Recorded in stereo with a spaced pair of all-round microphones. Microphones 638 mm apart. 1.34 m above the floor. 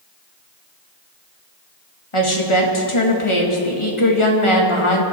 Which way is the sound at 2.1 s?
50° left (ahead or behind).